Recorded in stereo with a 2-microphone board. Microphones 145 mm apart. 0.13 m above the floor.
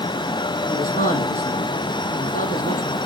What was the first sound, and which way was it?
A man speaking, 65° left (ahead or behind).